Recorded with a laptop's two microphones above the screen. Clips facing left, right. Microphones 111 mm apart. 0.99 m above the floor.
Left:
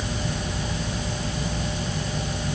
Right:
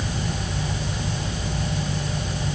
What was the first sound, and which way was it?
Only background noise.